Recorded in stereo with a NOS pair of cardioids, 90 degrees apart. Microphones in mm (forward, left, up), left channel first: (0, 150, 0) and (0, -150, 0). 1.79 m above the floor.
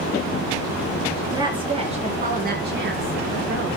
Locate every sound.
1.3 s a woman speaking: 10° right, 4.5 m; by 3.8 s 45° right, 4.5 m